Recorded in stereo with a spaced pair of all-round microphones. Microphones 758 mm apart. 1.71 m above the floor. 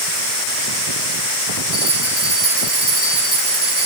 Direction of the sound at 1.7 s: 40° left (ahead or behind).